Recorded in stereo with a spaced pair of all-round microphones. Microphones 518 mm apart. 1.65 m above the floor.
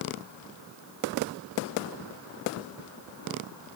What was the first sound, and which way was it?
Only background noise.